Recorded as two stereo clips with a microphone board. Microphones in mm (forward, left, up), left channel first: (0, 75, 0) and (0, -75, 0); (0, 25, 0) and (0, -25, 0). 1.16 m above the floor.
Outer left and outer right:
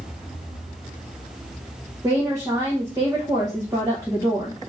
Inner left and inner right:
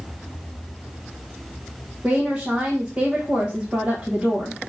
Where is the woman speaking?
20° right (ahead or behind), 1.0 m.